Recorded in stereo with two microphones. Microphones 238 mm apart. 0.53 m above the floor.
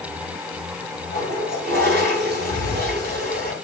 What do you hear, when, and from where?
1.1 s a toilet flushing: 45° right (ahead or behind), 2.5 m